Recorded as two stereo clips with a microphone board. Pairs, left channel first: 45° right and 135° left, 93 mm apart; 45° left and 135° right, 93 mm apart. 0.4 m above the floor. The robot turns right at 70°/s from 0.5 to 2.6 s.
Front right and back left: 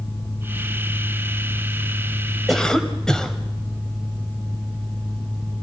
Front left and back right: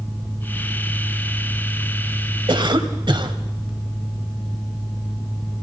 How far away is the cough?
About 2.5 m.